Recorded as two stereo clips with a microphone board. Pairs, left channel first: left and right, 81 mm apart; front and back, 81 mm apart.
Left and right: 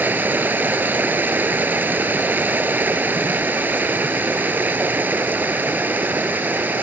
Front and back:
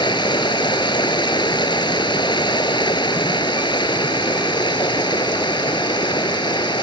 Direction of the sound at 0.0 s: 20° right.